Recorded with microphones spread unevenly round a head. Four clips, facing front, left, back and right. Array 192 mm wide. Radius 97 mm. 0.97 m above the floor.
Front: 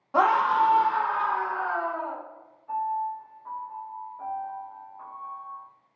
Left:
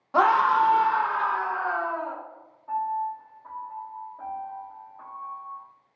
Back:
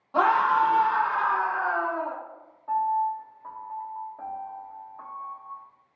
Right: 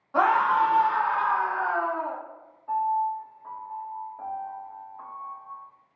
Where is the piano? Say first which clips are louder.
Right 3 dB, back 4 dB; 170° right, 0.9 m.